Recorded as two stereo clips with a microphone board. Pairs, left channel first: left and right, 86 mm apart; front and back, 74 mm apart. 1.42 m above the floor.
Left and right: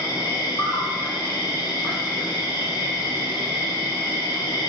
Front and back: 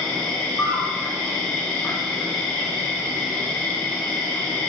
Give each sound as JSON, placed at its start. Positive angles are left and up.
{"t": 0.0, "sound": "an insect", "azimuth_deg": 60, "distance_m": 1.3}